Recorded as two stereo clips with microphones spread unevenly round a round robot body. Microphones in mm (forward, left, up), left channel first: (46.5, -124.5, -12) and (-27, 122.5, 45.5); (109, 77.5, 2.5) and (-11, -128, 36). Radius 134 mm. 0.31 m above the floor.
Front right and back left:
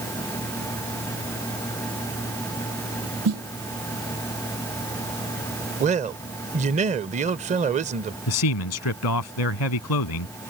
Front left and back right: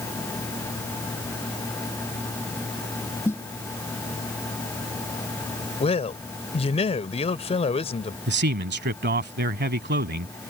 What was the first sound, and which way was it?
A snare drum, 140° left.